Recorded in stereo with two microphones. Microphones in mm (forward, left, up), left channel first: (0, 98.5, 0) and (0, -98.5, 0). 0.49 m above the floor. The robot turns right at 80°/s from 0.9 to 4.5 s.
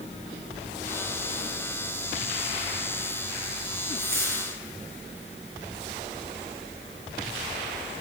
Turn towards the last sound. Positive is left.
turn(degrees=-60)